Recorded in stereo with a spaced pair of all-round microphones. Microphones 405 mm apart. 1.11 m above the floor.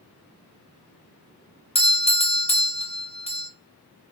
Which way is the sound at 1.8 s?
15° left (ahead or behind).